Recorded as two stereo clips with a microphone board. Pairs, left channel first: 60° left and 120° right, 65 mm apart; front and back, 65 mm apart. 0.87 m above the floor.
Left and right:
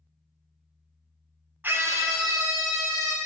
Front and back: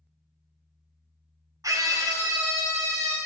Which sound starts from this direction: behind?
A scream, at 1.6 s.